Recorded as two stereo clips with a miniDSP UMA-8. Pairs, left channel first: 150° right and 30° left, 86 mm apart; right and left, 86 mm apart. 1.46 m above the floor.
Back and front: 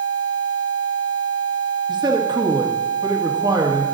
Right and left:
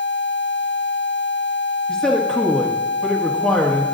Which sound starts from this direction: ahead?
A man speaking, at 1.9 s.